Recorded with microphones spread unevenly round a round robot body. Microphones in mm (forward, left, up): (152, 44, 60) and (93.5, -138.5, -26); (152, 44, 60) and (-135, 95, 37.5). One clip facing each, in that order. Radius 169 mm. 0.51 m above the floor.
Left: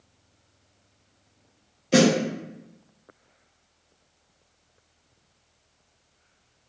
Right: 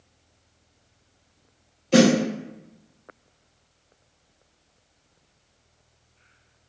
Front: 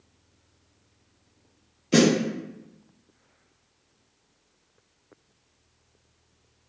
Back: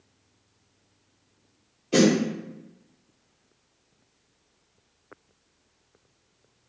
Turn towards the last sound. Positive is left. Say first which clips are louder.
# right 2 dB, even
turn(degrees=-40)